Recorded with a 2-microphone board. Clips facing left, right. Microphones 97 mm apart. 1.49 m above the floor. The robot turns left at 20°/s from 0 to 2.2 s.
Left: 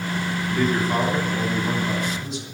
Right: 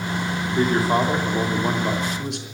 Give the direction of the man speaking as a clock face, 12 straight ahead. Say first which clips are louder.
Right 2 dB; 1 o'clock.